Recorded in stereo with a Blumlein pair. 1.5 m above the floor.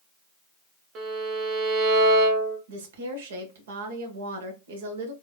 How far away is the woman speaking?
About 1.0 m.